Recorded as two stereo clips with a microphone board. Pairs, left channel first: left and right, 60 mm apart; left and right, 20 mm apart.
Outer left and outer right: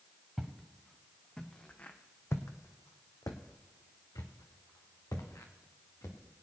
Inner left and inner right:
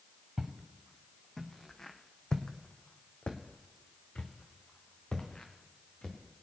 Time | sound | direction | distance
0.4 | footsteps | 5° right (ahead or behind) | 2 m